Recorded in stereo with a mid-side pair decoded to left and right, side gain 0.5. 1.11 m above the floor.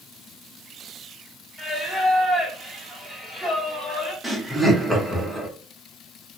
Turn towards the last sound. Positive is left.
turn(degrees=-5)